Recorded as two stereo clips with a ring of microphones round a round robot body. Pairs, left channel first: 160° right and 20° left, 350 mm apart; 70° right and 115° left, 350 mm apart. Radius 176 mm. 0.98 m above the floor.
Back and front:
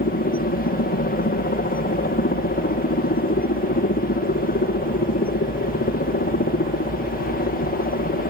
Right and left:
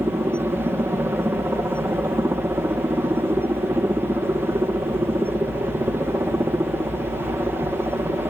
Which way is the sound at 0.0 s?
170° right.